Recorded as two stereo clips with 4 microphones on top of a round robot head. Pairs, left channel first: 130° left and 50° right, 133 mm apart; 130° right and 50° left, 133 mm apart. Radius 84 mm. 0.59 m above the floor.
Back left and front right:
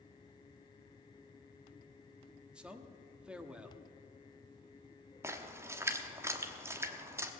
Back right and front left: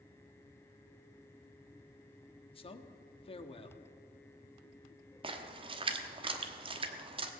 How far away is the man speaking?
About 1.2 m.